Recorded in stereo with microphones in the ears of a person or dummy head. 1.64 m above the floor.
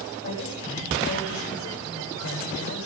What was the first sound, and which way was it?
A woman speaking, 60° left (ahead or behind).